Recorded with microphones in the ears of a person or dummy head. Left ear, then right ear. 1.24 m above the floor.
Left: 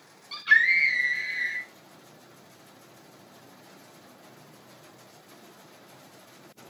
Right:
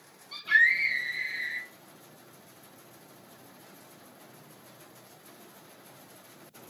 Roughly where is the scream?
Left.